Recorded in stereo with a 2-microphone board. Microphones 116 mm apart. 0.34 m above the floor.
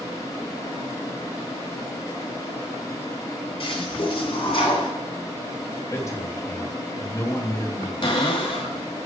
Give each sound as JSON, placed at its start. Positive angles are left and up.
{"t": 3.6, "sound": "a toilet flushing", "side_deg": 55, "distance_m": 1.9}
{"t": 5.9, "sound": "a man speaking", "side_deg": 30, "distance_m": 1.7}
{"t": 8.0, "sound": "a cupboard door", "side_deg": 50, "distance_m": 1.9}